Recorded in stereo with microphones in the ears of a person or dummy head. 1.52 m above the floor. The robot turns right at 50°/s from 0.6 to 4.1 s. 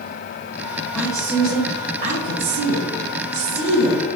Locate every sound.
0.9 s a woman speaking: 170° left, 2 m; by 4.0 s 35° right, 2 m